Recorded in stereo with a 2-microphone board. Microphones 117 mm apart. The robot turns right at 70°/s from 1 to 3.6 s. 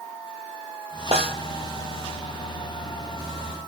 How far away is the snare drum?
About 1.9 m.